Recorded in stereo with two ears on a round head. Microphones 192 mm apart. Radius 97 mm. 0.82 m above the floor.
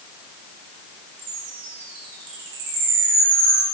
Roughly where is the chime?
Right.